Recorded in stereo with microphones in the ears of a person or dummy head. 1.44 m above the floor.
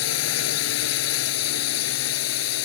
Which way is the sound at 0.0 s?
80° left.